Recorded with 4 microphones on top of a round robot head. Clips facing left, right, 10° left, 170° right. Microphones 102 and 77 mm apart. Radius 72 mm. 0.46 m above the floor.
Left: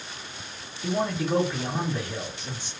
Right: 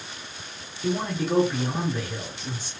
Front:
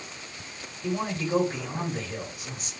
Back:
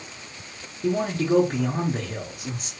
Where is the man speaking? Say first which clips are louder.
Even, back 6 dB; 170° right, 1.1 m.